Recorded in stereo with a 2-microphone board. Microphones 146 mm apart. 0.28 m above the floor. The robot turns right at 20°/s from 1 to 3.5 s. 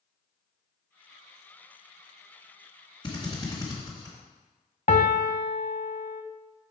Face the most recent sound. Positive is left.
turn(degrees=55)  # may be behind; listen again after turning